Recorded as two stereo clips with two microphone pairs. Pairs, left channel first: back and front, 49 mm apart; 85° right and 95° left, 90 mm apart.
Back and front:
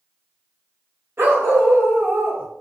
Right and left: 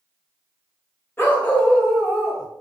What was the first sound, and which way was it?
A dog barking, 25° right.